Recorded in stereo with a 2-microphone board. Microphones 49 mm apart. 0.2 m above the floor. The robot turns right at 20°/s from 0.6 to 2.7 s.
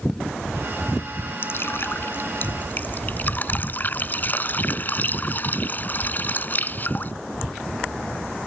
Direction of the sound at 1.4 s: 50° left (ahead or behind).